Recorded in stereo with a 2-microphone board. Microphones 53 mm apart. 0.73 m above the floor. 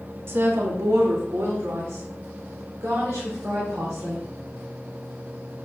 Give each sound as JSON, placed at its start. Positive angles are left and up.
{"t": 0.3, "sound": "a woman speaking", "side_deg": -50, "distance_m": 0.9}